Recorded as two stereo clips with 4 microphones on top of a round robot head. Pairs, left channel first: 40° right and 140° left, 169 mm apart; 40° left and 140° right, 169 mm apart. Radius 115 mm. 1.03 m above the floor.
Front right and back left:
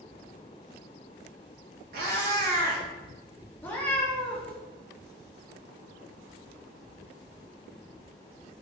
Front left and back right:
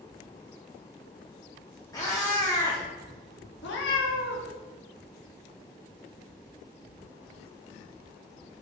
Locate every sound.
1.9 s a cat meowing: 110° left, 0.8 m
3.6 s a cat meowing: 35° left, 0.7 m